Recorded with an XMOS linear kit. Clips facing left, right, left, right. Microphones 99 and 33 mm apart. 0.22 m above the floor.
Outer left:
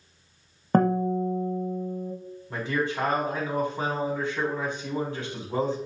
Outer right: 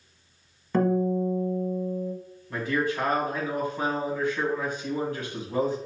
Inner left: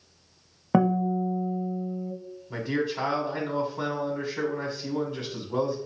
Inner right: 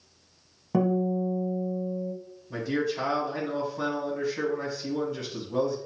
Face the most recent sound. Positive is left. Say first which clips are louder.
# outer right 1 dB, even
turn(degrees=25)  # may be behind; listen again after turning